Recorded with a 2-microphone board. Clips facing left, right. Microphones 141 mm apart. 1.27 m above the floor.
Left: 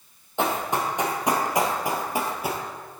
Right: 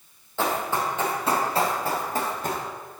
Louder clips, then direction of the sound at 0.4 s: Left 1 dB; 20° left (ahead or behind).